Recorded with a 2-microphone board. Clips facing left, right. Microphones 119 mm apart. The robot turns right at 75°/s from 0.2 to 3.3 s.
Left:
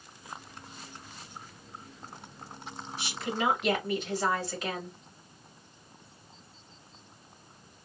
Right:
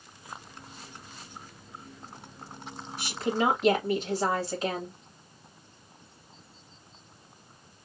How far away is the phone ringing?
I don't hear a phone ringing.